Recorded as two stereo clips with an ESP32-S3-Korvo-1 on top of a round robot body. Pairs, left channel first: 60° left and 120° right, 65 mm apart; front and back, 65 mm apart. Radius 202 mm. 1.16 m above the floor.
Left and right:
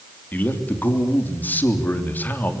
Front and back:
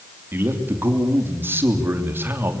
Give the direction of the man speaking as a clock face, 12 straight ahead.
8 o'clock.